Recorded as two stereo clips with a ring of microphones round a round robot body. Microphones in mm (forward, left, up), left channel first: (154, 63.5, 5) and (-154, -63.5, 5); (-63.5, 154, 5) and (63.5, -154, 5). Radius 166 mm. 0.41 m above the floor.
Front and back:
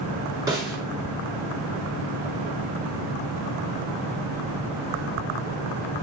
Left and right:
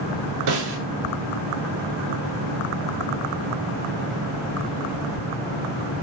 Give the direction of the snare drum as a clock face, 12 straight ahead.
3 o'clock.